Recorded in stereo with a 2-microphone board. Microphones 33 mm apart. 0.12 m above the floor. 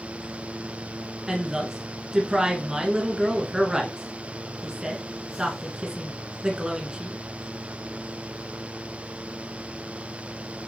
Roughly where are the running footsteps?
I don't hear running footsteps.